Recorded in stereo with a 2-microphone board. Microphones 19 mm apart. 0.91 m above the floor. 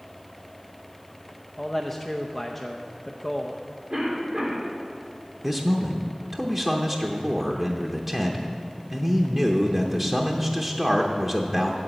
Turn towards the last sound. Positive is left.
turn(degrees=-20)  # may be behind; listen again after turning